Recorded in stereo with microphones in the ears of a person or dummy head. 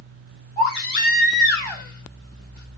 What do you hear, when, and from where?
0.6 s a baby crying: 30° right (ahead or behind), 2.5 m